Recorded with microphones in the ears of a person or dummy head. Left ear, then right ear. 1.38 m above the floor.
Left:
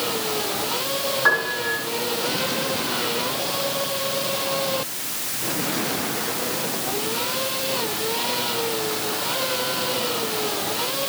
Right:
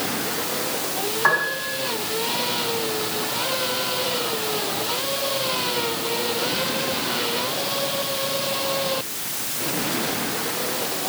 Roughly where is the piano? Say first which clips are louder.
Even; right.